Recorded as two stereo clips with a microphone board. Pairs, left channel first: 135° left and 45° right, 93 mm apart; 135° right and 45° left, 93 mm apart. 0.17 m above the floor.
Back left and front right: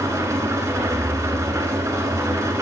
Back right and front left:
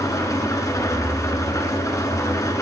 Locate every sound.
0.0 s an engine running: 95° right, 1.3 m